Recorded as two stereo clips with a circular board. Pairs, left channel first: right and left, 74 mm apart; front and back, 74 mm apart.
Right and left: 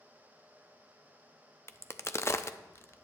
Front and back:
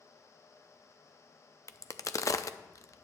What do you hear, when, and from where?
1.7 s a crack: 40° right, 0.5 m